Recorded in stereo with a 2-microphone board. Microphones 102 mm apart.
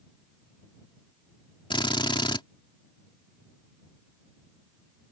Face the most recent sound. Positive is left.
turn(degrees=55)  # may be behind; listen again after turning